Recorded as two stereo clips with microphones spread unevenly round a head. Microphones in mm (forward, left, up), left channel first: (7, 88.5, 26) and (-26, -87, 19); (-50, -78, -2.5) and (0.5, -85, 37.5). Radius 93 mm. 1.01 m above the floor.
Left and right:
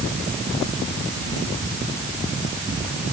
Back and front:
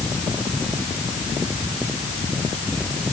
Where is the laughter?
I don't hear laughter.